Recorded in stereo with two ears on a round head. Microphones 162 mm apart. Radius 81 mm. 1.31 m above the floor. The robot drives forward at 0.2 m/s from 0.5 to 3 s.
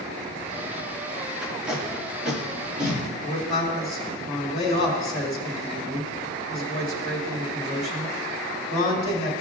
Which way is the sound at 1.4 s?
5° right (ahead or behind).